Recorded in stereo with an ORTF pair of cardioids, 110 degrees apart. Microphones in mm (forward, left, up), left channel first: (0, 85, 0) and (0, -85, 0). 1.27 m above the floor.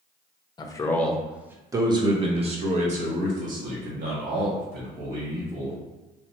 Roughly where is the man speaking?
Ahead left.